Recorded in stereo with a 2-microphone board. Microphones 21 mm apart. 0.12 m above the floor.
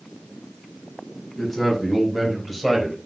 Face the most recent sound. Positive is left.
turn(degrees=-5)  # may be behind; listen again after turning